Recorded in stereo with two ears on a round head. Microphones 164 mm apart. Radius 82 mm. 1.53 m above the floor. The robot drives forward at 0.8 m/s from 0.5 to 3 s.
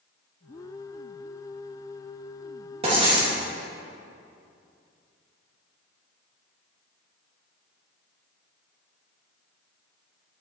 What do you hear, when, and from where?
2.8 s writing: 35° right (ahead or behind), 2.5 m; by 3.4 s 30° right (ahead or behind), 2.5 m